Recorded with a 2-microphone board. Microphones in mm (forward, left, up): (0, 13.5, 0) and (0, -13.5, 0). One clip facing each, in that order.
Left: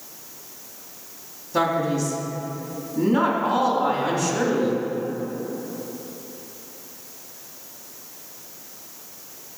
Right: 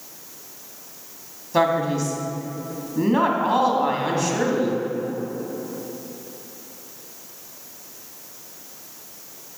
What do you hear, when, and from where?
1.5 s a man speaking: 25° right (ahead or behind), 1.8 m